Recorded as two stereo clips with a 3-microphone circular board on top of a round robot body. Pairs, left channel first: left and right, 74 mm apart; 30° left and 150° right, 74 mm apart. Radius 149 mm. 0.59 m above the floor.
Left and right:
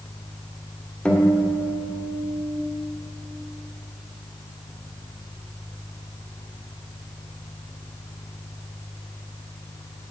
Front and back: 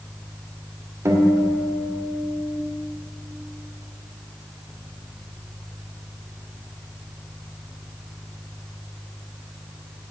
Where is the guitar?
160° left, 2 m.